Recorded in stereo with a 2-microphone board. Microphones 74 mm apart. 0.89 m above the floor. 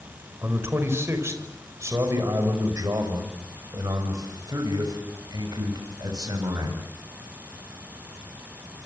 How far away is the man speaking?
About 5 m.